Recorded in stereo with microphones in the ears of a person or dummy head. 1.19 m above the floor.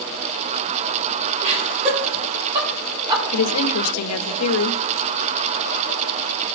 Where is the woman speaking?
80° left, 0.8 m.